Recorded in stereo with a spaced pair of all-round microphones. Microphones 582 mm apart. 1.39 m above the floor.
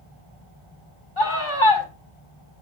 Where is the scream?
60° left (ahead or behind), 3 m.